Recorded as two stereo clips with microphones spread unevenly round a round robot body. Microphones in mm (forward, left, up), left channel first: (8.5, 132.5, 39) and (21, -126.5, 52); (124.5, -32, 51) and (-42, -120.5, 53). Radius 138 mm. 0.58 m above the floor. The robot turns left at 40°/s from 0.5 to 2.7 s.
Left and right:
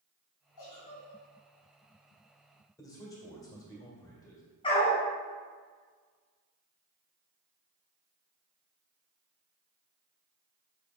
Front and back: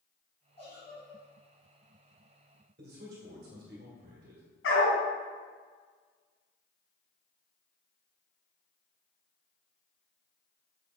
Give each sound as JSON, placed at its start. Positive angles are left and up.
{"t": 0.6, "sound": "a giggle", "azimuth_deg": 95, "distance_m": 2.0}
{"t": 2.8, "sound": "a man speaking", "azimuth_deg": 170, "distance_m": 1.8}
{"t": 4.6, "sound": "a dog barking", "azimuth_deg": 20, "distance_m": 1.9}